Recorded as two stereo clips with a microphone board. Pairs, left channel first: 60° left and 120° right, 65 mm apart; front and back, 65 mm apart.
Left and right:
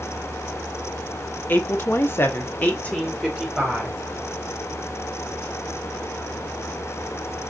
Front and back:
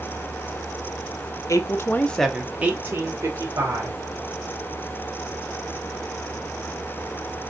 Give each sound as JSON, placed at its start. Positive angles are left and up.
{"t": 1.5, "sound": "a woman speaking", "azimuth_deg": 10, "distance_m": 0.8}